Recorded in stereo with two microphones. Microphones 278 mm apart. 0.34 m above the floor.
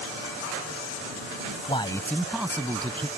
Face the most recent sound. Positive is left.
turn(degrees=-20)  # may be behind; listen again after turning